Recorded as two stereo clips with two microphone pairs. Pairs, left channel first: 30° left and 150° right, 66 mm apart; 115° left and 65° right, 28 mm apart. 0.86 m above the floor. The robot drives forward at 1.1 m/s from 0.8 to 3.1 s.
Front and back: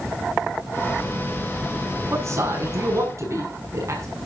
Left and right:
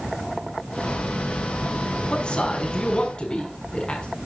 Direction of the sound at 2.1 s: 170° left.